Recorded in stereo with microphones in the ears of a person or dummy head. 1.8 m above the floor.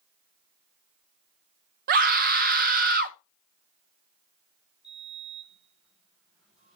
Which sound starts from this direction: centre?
A sliding door, at 4.8 s.